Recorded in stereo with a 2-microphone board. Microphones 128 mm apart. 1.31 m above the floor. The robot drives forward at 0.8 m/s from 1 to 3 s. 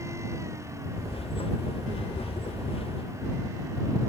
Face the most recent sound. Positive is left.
No sound to turn to.